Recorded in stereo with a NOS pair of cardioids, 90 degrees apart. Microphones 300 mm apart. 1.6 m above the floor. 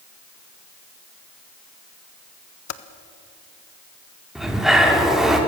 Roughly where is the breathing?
Ahead.